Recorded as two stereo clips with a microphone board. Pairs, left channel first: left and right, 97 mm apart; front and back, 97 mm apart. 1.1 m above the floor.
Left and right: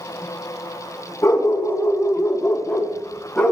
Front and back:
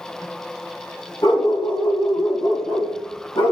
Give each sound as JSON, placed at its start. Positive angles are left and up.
{"t": 1.2, "sound": "a dog barking", "azimuth_deg": 30, "distance_m": 3.5}